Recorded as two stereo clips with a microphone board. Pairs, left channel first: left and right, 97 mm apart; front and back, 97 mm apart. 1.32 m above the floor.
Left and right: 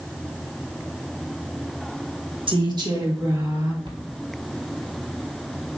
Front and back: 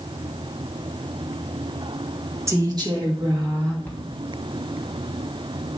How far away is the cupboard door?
About 1.8 m.